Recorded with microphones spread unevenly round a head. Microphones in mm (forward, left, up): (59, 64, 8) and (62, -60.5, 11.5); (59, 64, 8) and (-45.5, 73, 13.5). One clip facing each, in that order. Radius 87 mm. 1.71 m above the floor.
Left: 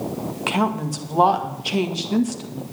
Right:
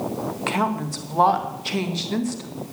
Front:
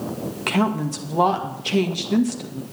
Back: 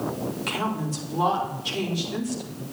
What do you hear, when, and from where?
0.5 s a woman speaking: 15° left, 2 m